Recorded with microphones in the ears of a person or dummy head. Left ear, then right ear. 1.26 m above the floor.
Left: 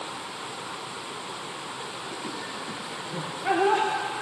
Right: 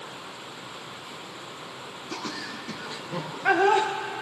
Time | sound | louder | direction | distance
2.1 | laughter | even | 80° right | 0.9 m